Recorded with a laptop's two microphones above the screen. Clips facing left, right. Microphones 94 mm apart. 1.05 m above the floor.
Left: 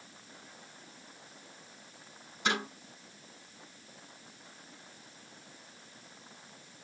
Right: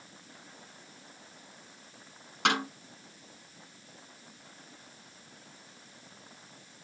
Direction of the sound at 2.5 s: 80° right.